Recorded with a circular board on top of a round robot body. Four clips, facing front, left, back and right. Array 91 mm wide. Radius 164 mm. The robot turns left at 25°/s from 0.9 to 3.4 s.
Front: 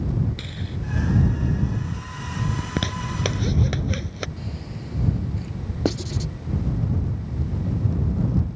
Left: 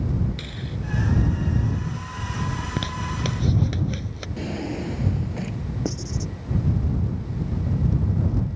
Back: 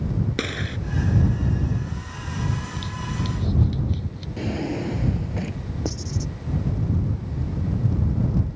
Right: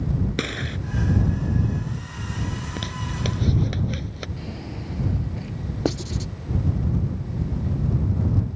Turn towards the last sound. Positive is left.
turn(degrees=-40)